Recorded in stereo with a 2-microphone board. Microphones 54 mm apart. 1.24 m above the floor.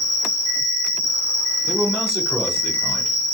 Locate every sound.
0.0 s an insect: 15° left (ahead or behind), 1.7 m
1.7 s a man speaking: 10° right (ahead or behind), 1.3 m